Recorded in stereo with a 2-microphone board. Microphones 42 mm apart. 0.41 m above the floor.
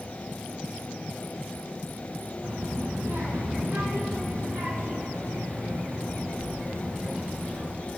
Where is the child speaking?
65° right (ahead or behind), 3 m; by 7.8 s 75° right (ahead or behind), 4.5 m.